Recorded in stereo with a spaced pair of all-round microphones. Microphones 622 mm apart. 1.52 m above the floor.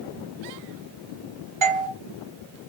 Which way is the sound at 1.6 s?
50° right (ahead or behind).